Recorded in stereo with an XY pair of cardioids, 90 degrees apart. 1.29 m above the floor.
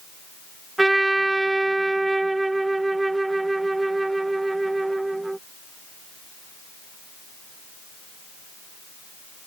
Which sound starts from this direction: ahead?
A trumpet, at 0.8 s.